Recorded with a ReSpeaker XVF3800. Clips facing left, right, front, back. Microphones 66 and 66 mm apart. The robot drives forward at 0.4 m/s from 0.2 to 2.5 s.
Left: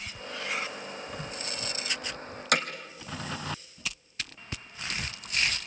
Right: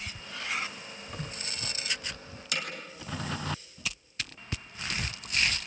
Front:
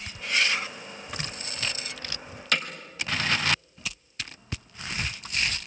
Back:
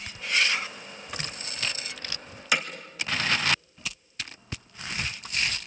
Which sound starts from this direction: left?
Hammering, at 2.5 s.